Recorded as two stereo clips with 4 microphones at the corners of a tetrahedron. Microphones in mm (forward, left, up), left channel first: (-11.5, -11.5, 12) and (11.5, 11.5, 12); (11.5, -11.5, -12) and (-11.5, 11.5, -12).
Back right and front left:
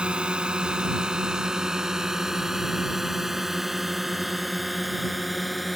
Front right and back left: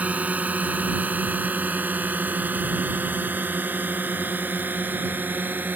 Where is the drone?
100° left; by 5.8 s 135° left.